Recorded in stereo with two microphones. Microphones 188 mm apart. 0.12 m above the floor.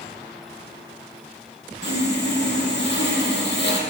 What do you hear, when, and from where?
1.8 s sawing: 65° left (ahead or behind), 3 m